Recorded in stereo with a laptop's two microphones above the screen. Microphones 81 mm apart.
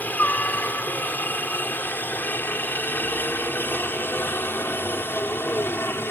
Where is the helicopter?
20° left (ahead or behind); by 6.1 s 25° left (ahead or behind).